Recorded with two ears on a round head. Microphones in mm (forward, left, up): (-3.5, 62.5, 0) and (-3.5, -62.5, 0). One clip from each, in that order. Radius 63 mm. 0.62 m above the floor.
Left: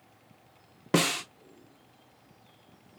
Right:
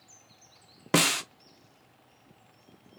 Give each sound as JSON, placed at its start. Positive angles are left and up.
{"t": 0.9, "sound": "a snare drum", "side_deg": -30, "distance_m": 0.6}